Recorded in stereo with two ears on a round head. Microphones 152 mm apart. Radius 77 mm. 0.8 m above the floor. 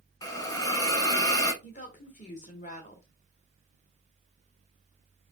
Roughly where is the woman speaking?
Left.